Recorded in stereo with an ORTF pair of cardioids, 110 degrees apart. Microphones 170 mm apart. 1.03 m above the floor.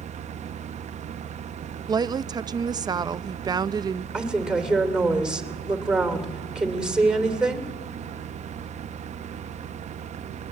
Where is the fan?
40° right, 0.8 m.